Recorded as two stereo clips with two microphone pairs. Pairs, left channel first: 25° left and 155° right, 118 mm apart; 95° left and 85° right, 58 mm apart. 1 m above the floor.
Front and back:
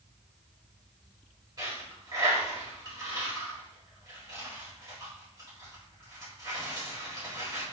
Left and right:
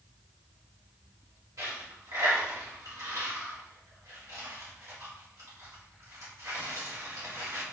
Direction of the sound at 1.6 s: 100° right.